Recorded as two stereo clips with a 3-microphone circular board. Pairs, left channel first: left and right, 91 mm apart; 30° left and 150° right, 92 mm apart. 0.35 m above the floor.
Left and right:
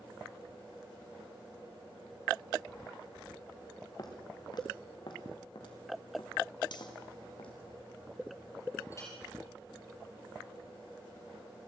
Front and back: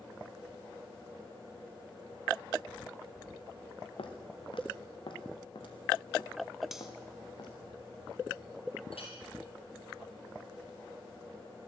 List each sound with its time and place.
4.0 s footsteps: 45° left, 3 m; by 7.5 s 65° left, 5.5 m
6.7 s cutlery clinking: 125° left, 1.8 m
8.9 s a clink: 35° left, 6.5 m